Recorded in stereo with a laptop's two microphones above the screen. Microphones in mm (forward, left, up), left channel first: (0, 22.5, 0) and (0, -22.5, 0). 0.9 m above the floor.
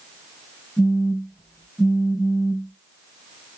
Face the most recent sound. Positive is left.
turn(degrees=-15)  # may be behind; listen again after turning